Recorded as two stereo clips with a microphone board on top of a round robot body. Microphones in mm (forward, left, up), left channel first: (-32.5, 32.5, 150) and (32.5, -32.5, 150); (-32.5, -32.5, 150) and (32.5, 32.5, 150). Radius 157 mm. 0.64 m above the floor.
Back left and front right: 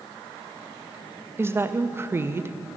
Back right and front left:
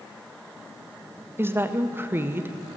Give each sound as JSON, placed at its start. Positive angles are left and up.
{"t": 1.4, "sound": "a woman speaking", "azimuth_deg": 0, "distance_m": 0.8}